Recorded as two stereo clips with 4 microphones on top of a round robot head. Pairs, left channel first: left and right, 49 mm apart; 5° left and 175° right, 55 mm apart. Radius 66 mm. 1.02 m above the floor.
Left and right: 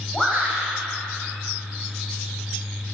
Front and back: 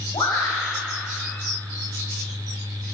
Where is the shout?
5° left, 6 m.